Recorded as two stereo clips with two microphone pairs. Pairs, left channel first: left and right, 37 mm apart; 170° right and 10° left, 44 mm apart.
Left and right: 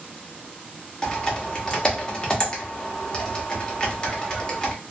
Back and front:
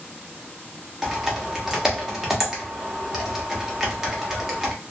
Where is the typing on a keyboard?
75° left, 0.8 m.